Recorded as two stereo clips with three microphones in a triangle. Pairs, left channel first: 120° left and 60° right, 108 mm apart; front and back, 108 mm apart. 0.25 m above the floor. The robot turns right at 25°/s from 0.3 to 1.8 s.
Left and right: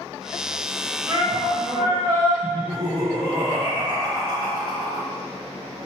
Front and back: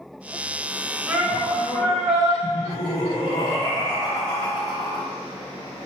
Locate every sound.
1.1 s a shout: 110° right, 2.5 m; by 2.3 s 90° right, 2.5 m
2.4 s laughter: 15° right, 1.7 m